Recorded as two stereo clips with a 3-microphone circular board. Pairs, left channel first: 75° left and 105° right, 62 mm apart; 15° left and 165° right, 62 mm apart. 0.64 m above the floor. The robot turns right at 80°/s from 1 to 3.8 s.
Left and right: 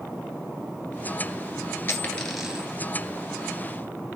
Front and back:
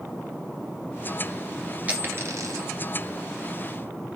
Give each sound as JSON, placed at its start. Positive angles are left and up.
{"t": 1.9, "sound": "a dropped coin", "azimuth_deg": 130, "distance_m": 1.9}